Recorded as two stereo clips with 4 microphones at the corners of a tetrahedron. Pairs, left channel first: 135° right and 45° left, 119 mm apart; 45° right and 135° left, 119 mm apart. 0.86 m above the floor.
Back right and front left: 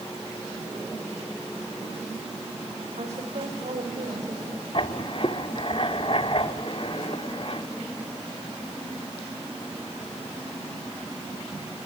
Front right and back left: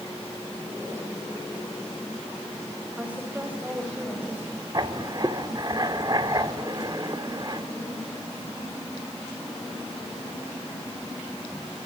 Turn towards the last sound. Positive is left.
turn(degrees=-175)